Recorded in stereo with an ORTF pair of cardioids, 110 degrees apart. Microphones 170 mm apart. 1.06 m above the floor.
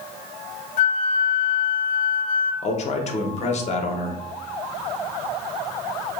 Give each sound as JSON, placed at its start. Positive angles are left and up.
{"t": 0.8, "sound": "a flute", "azimuth_deg": 50, "distance_m": 0.7}
{"t": 2.6, "sound": "a man speaking", "azimuth_deg": 45, "distance_m": 0.6}